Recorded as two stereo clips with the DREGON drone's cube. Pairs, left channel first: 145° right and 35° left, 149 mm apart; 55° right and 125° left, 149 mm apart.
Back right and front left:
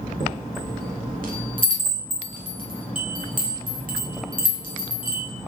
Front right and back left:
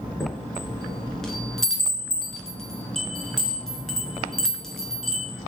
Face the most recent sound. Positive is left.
turn(degrees=30)